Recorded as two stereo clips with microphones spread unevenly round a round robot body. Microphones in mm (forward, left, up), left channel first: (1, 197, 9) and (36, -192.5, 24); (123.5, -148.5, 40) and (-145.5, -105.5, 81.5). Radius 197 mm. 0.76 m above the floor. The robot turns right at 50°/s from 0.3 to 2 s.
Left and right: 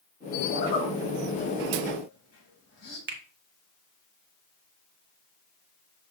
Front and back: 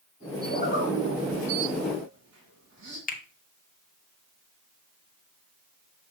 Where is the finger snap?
35° right, 1.1 m.